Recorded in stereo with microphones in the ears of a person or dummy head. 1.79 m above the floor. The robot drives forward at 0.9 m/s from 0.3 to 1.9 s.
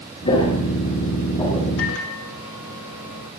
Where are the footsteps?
30° left (ahead or behind), 5.5 m; by 1.7 s 20° left (ahead or behind), 6 m.